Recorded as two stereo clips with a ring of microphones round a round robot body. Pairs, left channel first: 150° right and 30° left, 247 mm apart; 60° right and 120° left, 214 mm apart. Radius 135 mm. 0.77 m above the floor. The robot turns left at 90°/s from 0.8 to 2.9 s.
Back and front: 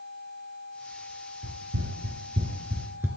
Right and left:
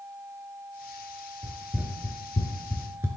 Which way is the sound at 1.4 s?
65° left.